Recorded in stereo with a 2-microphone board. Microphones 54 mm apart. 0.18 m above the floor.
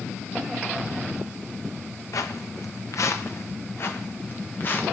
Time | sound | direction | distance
2.1 | footsteps | 85° left | 1.3 m